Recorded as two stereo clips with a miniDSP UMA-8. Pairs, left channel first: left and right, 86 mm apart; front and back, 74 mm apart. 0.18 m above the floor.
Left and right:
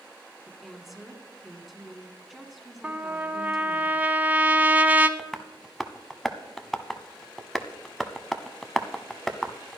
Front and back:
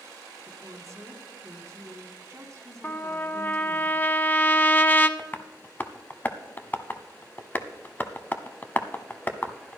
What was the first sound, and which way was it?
A woman speaking, 175° right.